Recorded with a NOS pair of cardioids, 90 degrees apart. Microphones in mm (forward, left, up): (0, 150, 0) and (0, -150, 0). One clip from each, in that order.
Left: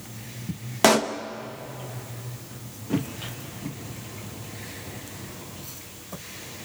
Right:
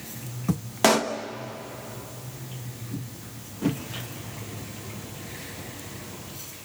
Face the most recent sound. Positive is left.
turn(degrees=10)